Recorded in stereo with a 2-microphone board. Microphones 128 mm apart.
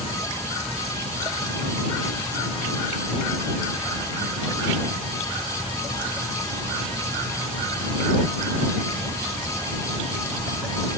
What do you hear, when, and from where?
Only background noise.